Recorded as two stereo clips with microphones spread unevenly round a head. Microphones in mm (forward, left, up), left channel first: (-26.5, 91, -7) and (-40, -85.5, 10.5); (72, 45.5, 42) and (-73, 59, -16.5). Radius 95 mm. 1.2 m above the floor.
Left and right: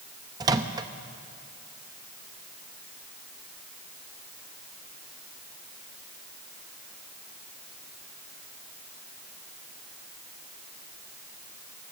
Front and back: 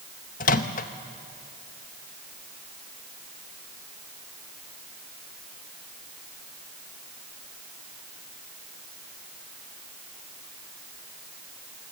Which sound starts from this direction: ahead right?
A microwave, at 0.4 s.